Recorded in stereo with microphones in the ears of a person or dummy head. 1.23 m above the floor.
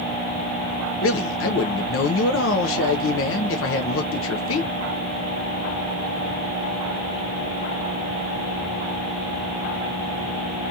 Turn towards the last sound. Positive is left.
turn(degrees=65)  # may be behind; listen again after turning